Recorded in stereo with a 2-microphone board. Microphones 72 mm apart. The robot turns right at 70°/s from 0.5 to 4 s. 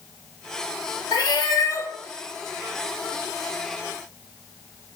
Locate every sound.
1.1 s a cat meowing: 90° left, 0.8 m; by 1.9 s 145° left, 0.8 m